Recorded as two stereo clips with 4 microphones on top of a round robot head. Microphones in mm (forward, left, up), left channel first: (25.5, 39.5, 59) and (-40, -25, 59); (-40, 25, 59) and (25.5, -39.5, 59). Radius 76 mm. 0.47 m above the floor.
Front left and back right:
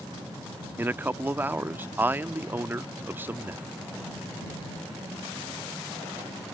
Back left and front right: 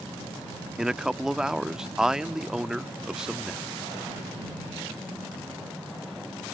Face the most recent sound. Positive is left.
turn(degrees=-120)